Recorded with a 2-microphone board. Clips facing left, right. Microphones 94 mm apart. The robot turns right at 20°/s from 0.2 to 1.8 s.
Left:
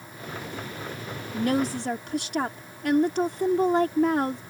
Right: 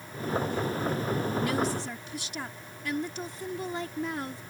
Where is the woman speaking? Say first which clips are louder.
Left 9 dB; 45° left (ahead or behind); by 4.4 s 55° left (ahead or behind).